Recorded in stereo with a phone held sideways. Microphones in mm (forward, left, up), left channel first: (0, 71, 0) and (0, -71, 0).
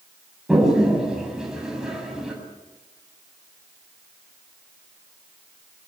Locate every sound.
0.5 s a toilet flushing: 5° right (ahead or behind), 7.5 m